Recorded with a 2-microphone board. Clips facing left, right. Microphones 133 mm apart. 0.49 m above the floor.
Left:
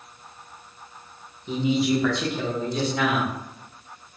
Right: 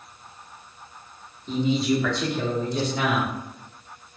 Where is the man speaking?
10° left (ahead or behind), 0.9 m; by 3.3 s 5° right (ahead or behind), 1.4 m.